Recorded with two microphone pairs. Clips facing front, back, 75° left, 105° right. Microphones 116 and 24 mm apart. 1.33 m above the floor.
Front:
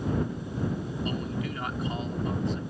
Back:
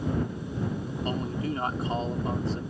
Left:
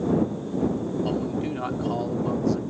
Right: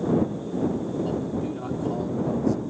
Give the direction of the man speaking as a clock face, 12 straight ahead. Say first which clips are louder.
Back 3 dB, left 1 dB; 8 o'clock.